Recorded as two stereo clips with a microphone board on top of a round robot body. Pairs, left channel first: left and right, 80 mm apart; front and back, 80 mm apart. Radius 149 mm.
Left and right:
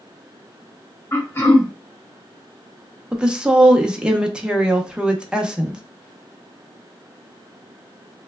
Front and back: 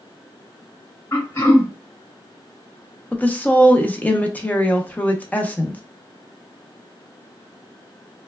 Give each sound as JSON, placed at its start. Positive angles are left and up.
{"t": 1.1, "sound": "throat clearing", "azimuth_deg": 45, "distance_m": 1.8}
{"t": 3.1, "sound": "a woman speaking", "azimuth_deg": -30, "distance_m": 0.8}